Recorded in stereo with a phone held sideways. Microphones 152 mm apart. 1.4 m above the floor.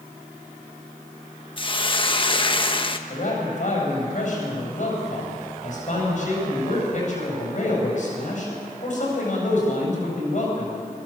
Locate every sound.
1.6 s a hiss: 35° left (ahead or behind), 1.1 m
3.1 s a man speaking: 55° left (ahead or behind), 8 m